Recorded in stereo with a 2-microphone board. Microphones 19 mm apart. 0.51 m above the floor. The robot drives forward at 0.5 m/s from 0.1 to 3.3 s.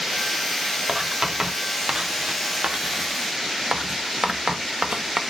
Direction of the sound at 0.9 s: 30° right (ahead or behind).